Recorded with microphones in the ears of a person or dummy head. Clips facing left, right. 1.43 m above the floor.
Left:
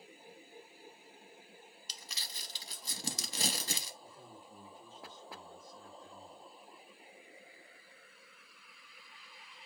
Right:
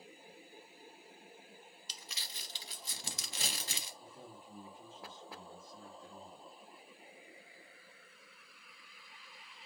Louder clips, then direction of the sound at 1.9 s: Left 1 dB; 40° left (ahead or behind).